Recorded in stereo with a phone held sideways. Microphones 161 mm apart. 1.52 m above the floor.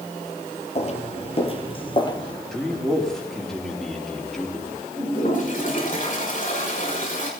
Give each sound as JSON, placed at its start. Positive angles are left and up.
{"t": 0.8, "sound": "footsteps", "side_deg": 40, "distance_m": 1.9}
{"t": 2.5, "sound": "a man speaking", "side_deg": 5, "distance_m": 3.0}
{"t": 5.0, "sound": "a toilet flushing", "side_deg": 50, "distance_m": 5.5}